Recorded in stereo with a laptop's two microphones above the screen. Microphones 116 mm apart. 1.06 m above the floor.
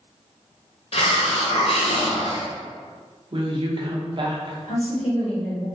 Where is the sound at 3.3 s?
45° right (ahead or behind), 0.8 m.